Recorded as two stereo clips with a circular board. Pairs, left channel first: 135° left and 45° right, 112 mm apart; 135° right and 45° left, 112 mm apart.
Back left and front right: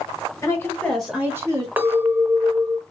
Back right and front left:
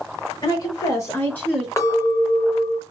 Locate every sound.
0.4 s a woman speaking: 175° right, 1.3 m; by 1.7 s 55° right, 1.1 m
1.8 s a clink: 100° right, 0.7 m